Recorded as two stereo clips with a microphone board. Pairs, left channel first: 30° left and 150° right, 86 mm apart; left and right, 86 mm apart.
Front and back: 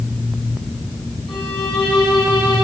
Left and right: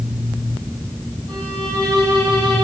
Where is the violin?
20° left, 5.5 m.